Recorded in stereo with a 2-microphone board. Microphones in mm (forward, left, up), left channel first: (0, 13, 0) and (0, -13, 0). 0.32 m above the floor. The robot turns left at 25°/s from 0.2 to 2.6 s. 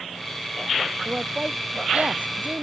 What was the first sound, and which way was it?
A woman speaking, 30° right.